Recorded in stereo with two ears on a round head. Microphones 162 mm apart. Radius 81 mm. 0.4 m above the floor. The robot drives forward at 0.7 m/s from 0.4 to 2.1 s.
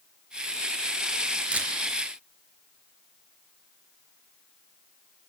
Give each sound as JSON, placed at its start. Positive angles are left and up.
{"t": 1.5, "sound": "a camera shutter", "side_deg": -10, "distance_m": 3.5}